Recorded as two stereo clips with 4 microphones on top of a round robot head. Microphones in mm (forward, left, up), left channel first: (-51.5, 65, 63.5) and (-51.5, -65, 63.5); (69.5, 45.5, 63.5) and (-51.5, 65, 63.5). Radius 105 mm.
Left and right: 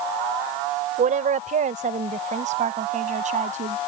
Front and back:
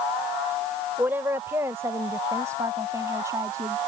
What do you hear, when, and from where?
1.0 s a woman speaking: 110° right; by 3.8 s 120° right